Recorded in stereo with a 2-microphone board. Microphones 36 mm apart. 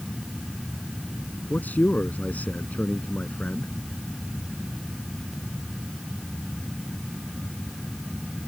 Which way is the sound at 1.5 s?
55° left (ahead or behind).